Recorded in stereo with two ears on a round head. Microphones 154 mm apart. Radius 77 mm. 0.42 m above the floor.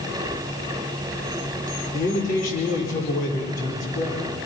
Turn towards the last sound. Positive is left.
turn(degrees=50)  # may be behind; listen again after turning